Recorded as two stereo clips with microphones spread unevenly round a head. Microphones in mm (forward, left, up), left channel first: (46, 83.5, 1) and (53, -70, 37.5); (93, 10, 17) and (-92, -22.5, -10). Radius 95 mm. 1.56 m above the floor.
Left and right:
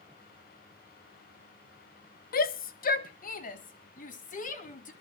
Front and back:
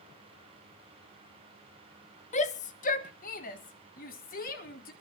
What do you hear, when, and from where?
2.3 s a shout: 60° left, 0.8 m; by 4.9 s 55° left, 2.5 m